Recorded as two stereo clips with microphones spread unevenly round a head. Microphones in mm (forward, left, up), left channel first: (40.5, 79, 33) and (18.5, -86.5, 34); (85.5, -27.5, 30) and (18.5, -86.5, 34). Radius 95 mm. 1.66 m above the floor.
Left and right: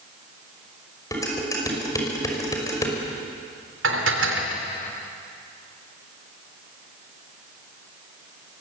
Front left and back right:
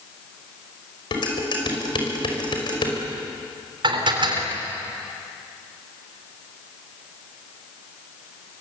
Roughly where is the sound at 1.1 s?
Ahead.